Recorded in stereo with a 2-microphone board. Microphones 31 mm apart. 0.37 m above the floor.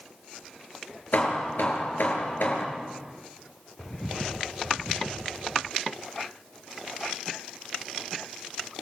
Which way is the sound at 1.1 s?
80° left.